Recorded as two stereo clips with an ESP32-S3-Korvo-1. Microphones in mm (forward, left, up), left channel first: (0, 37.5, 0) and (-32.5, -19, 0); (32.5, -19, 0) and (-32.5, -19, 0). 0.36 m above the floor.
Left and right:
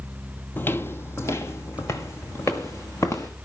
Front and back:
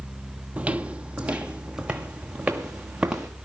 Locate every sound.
0.6 s footsteps: 115° left, 0.6 m; by 3.3 s 105° left, 2.5 m